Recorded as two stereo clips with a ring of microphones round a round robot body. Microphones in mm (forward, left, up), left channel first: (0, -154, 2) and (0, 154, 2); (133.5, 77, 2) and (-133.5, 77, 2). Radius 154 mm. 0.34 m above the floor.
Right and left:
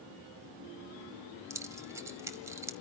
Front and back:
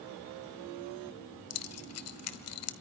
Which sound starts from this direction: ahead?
Keys jangling, at 1.5 s.